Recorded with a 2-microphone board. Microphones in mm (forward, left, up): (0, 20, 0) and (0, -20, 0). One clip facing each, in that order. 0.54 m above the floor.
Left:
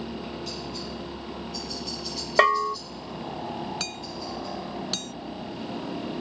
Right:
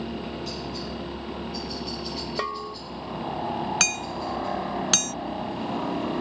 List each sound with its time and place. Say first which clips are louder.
0.0 s a helicopter: right 2 dB; centre (ahead or behind); by 6.2 s 50° right (ahead or behind)
2.4 s a bell: left 13 dB; 60° left (ahead or behind)
3.8 s hammering: right 7 dB; 70° right (ahead or behind)